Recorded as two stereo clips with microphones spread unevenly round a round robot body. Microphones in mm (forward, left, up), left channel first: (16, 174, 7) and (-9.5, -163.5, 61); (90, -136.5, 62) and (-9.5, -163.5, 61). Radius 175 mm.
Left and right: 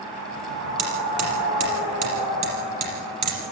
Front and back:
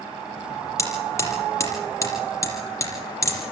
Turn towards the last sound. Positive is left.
turn(degrees=-45)